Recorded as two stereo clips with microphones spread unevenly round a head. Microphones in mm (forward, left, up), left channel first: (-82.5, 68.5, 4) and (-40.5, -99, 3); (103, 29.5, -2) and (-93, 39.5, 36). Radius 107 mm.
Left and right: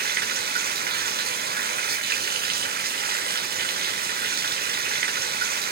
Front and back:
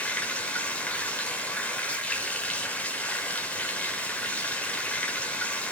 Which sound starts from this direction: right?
Running water, at 0.0 s.